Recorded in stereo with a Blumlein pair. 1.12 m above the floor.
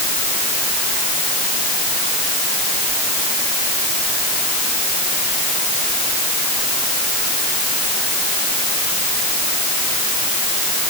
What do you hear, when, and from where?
Only background noise.